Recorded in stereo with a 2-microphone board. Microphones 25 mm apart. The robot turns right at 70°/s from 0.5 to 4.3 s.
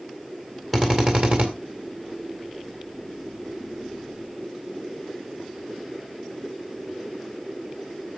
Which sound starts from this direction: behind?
A drill, at 0.7 s.